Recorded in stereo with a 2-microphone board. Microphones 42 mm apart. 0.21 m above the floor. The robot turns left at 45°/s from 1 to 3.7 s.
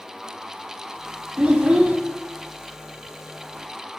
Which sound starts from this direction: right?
A child speaking, at 1.4 s.